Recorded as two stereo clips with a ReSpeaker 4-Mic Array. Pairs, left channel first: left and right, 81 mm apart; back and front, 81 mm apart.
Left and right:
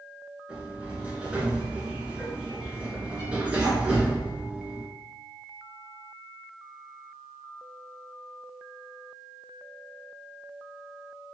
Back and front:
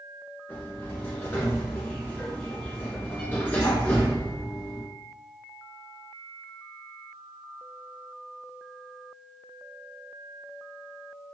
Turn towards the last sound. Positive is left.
turn(degrees=-135)